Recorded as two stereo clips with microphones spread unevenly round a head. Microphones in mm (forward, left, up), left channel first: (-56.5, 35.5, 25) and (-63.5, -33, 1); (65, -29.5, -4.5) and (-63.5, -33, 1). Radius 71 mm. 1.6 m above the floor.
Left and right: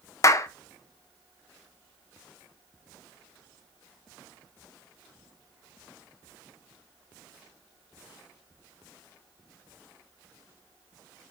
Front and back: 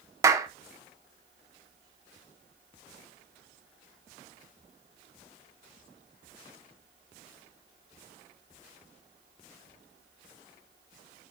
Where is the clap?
110° left, 0.8 m.